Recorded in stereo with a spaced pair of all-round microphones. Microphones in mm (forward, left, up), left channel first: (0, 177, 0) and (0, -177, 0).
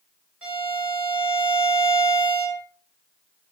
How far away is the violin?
About 5 m.